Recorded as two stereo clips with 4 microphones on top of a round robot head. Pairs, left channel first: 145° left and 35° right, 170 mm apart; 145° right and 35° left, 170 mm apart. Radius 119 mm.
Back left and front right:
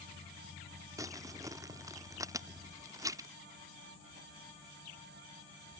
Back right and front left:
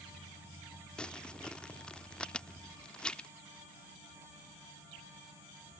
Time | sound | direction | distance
1.0 | crumpling | 70° right | ?